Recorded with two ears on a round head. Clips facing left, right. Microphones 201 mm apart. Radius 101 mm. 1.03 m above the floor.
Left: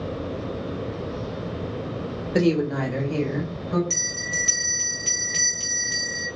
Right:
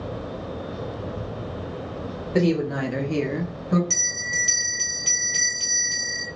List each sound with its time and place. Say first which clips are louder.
2.3 s a woman speaking: left 1 dB; 15° left (ahead or behind), 1.1 m; by 3.8 s 50° right (ahead or behind), 1.2 m
3.9 s a bell: left 3 dB; 5° right (ahead or behind), 1.5 m